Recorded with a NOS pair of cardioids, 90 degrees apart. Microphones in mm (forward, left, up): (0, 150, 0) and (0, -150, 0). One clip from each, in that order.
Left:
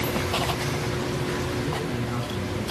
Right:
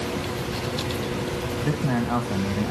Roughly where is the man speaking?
Right.